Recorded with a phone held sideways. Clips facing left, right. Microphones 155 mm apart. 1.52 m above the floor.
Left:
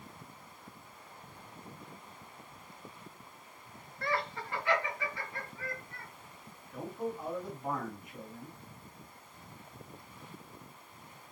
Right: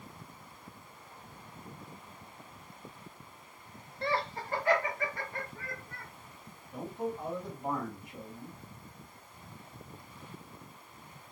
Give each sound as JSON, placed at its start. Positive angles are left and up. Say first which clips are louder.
{"t": 4.0, "sound": "laughter", "louder": "right 2 dB", "side_deg": -25, "distance_m": 0.5}
{"t": 6.7, "sound": "a man speaking", "louder": "right 1 dB", "side_deg": -30, "distance_m": 2.0}